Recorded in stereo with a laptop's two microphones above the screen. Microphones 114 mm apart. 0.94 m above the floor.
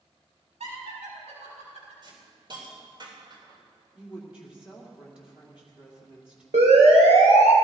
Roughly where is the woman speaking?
Centre.